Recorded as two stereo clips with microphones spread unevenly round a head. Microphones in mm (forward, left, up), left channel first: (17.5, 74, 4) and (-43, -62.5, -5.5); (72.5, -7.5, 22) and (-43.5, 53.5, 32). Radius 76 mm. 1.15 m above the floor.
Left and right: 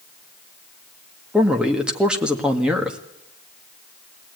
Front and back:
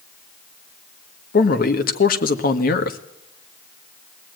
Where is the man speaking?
30° right, 1.8 m.